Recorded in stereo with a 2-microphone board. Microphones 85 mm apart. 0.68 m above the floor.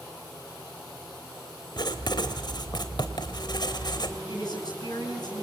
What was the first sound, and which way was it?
Writing, 60° left (ahead or behind).